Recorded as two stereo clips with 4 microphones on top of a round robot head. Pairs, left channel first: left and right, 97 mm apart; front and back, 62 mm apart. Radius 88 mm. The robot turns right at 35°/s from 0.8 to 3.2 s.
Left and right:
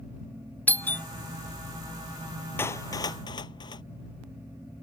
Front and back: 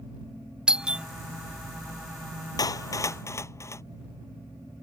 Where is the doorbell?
125° left; by 1.1 s 135° left.